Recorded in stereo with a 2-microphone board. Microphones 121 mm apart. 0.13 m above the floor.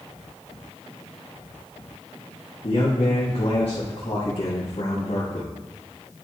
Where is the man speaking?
60° left (ahead or behind), 4 m.